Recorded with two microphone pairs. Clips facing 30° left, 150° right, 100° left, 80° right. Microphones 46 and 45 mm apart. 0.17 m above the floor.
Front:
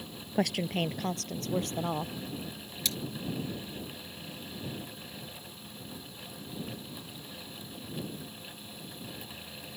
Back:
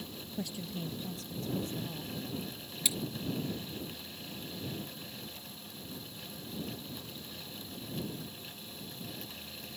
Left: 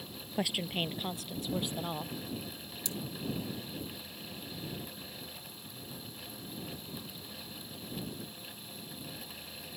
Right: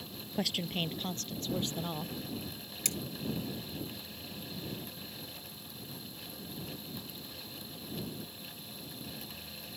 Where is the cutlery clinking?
70° right.